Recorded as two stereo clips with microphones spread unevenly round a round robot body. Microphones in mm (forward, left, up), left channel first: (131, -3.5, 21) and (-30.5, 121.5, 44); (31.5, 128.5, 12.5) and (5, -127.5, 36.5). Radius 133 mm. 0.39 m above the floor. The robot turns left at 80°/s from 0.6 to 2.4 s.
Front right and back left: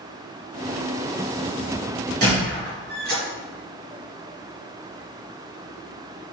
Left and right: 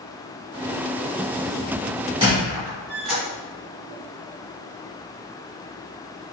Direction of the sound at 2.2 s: 170° right.